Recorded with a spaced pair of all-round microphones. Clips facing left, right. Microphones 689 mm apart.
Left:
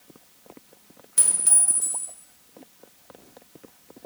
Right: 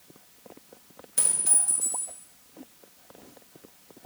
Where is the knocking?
I don't hear knocking.